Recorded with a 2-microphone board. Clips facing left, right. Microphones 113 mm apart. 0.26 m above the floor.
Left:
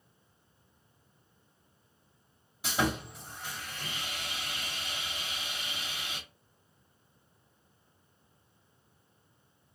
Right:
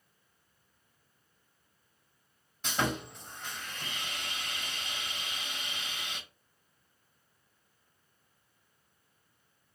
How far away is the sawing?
About 1.0 m.